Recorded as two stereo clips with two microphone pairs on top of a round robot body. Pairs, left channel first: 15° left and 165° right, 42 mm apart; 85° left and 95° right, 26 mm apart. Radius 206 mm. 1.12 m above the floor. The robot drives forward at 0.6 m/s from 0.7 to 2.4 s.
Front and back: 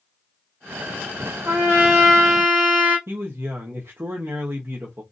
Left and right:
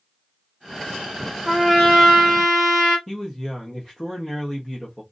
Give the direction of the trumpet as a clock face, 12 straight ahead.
5 o'clock.